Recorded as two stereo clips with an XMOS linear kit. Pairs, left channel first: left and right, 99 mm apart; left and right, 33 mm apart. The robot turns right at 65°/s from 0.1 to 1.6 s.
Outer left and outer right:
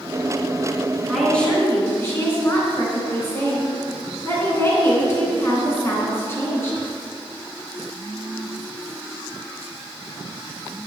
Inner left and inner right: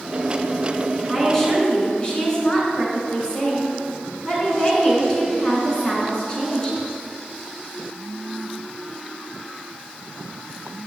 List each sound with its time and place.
1.1 s a woman speaking: 5° right, 3 m; by 6.9 s 30° left, 3 m